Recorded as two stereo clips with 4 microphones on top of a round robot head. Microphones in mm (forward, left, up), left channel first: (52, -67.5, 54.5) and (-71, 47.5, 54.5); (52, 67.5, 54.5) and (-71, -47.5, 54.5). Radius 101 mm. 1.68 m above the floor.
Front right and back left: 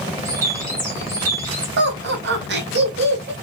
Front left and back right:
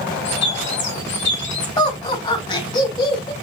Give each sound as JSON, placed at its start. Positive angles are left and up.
{"t": 0.2, "sound": "a bird", "azimuth_deg": 60, "distance_m": 2.0}
{"t": 1.8, "sound": "laughter", "azimuth_deg": 110, "distance_m": 2.0}